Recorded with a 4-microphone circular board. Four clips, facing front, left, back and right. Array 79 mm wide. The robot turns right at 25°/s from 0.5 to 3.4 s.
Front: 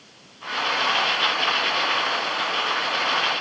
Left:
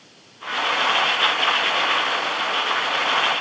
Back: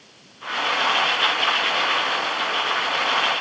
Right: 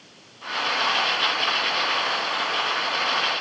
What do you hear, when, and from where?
Only background noise.